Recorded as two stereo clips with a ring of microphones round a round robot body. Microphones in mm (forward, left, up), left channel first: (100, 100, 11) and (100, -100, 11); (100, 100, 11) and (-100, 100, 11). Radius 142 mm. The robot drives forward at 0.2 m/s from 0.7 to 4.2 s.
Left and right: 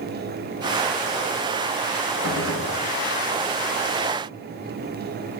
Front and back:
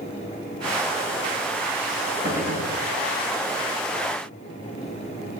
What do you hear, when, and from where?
2.2 s a gunshot: 115° right, 6 m